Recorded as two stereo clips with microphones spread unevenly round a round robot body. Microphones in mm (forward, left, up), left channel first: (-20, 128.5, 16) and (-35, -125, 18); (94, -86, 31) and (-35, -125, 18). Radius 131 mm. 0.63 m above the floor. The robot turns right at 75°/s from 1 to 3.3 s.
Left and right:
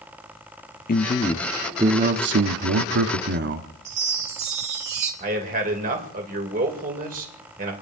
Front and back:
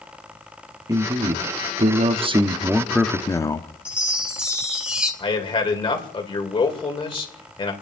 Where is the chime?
85° right, 3.5 m.